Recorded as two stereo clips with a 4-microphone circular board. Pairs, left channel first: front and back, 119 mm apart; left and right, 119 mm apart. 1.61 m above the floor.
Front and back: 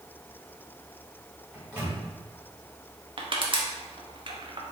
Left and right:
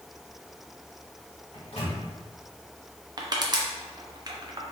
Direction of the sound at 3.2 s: 140° right.